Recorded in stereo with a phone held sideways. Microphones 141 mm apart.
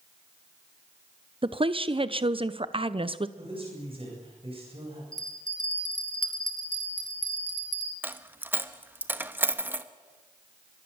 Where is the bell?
65° right (ahead or behind), 2.5 m.